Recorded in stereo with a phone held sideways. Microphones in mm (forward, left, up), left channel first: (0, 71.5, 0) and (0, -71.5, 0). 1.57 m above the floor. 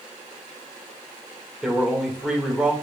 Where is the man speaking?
5° right (ahead or behind), 2 m.